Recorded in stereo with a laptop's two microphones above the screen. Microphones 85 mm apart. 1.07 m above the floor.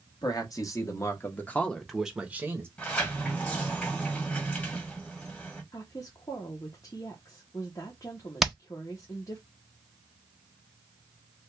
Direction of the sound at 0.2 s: 50° left (ahead or behind).